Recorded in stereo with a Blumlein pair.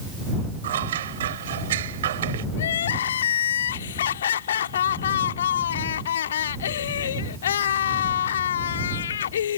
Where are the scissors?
60° right.